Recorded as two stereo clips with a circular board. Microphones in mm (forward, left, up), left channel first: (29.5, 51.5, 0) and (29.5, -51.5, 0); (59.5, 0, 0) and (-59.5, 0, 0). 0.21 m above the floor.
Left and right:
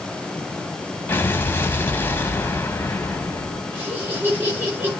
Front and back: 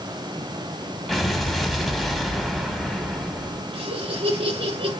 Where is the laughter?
155° right, 3.5 m.